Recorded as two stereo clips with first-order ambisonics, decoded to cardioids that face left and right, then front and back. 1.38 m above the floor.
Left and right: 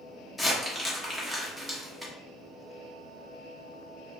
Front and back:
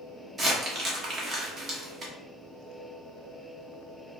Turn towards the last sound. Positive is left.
turn(degrees=-175)